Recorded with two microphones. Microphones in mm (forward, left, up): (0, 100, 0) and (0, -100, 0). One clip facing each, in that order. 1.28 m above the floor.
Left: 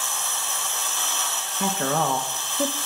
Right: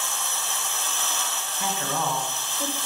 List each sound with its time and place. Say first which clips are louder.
1.6 s a woman speaking: left 5 dB; 60° left (ahead or behind), 1.1 m